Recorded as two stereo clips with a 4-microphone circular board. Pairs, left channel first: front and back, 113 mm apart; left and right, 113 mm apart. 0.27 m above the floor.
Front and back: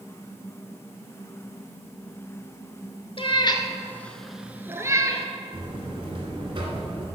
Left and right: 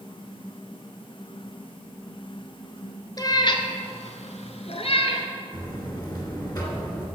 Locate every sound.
3.2 s a cat meowing: 35° left, 0.9 m; by 5.3 s 125° left, 1.1 m
5.5 s a buzzer: 140° left, 2.5 m